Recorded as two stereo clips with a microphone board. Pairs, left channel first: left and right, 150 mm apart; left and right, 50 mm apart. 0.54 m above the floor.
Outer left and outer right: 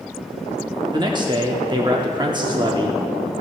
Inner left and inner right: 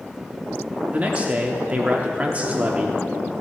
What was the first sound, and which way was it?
A man speaking, 30° right (ahead or behind).